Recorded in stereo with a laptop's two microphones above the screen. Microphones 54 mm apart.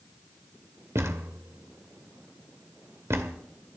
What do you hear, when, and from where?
0.9 s a thud: 55° right (ahead or behind), 1.9 m